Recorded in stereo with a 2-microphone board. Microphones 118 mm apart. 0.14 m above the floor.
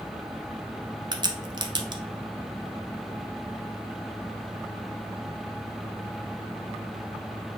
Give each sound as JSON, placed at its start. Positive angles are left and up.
{"t": 1.1, "sound": "a crack", "side_deg": -40, "distance_m": 0.6}